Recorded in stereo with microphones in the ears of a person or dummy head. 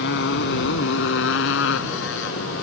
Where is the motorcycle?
65° left (ahead or behind); by 2.6 s 70° left (ahead or behind).